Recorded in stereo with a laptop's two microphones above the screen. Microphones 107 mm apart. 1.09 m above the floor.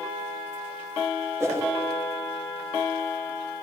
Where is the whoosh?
25° right (ahead or behind), 3 m.